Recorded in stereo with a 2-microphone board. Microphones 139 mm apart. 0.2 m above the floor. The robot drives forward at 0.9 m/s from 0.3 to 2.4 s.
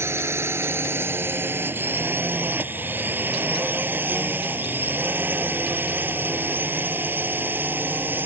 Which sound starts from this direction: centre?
A drone, at 0.0 s.